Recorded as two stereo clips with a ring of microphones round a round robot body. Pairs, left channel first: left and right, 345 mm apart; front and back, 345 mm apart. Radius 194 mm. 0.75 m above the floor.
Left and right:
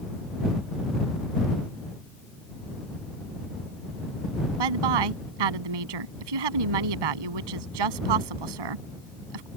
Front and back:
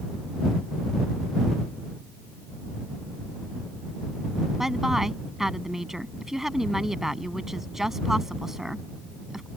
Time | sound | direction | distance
4.6 | a woman speaking | 90° right | ?